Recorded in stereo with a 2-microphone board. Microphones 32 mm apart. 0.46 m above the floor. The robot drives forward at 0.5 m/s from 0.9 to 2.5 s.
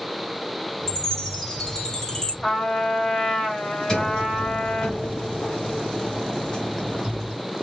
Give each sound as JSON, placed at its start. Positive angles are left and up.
{"t": 0.9, "sound": "a chime", "side_deg": 15, "distance_m": 4.0}
{"t": 2.4, "sound": "a trumpet", "side_deg": 25, "distance_m": 3.0}
{"t": 3.9, "sound": "a sliding door", "side_deg": 20, "distance_m": 2.5}